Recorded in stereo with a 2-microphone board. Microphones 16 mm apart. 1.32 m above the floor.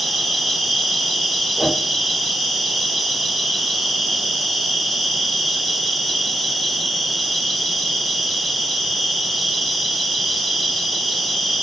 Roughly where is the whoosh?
Left.